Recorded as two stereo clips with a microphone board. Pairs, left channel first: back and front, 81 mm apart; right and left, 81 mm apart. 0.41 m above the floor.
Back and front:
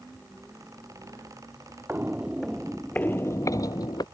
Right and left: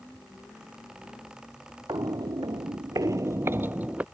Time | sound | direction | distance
1.9 | footsteps | 65° left | ?